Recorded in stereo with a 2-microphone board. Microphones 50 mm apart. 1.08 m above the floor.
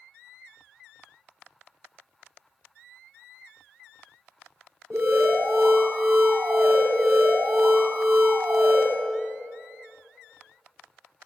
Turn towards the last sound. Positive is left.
turn(degrees=-70)  # may be behind; listen again after turning